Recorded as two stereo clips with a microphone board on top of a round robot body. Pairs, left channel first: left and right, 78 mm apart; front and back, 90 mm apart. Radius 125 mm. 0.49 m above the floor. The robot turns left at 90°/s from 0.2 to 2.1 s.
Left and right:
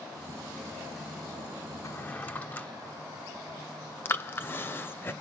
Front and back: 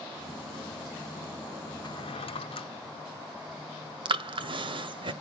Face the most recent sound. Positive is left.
turn(degrees=150)